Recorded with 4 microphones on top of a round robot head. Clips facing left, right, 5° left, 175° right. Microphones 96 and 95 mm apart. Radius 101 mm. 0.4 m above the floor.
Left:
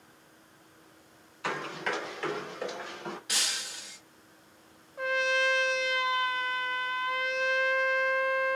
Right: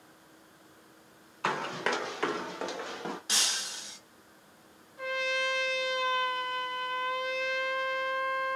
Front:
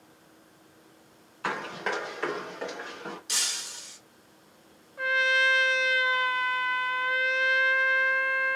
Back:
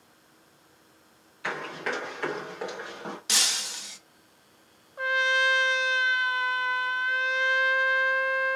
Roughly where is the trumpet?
Behind left.